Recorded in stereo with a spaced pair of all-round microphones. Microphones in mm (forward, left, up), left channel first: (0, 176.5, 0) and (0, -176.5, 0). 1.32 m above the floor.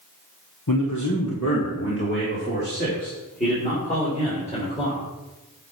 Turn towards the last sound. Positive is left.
turn(degrees=15)  # may be behind; listen again after turning